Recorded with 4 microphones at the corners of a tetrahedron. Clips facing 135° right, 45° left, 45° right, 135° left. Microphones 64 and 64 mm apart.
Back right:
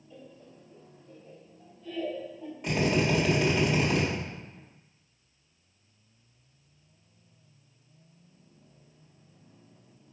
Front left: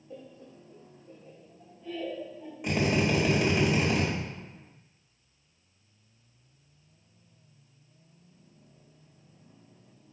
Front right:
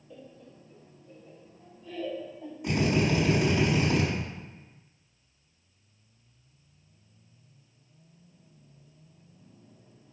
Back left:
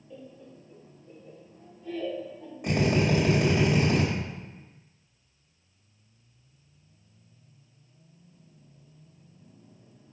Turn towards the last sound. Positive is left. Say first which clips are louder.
# even, back left 1 dB
turn(degrees=125)